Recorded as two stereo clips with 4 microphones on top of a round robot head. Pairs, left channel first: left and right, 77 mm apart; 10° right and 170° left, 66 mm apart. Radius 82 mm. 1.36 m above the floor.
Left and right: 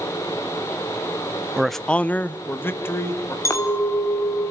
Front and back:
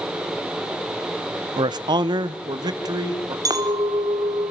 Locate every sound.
1.6 s a man speaking: 170° right, 0.7 m; by 3.4 s 145° left, 3.5 m
3.5 s a clink: 140° left, 2 m